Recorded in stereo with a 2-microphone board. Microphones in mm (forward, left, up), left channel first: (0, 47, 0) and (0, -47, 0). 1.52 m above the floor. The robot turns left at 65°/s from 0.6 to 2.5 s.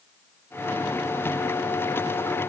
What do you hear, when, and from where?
Only background noise.